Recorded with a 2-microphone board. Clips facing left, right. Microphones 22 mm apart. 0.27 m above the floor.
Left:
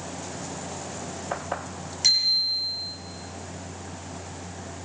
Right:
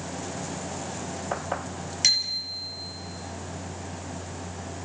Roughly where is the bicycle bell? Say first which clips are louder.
Left 3 dB; right.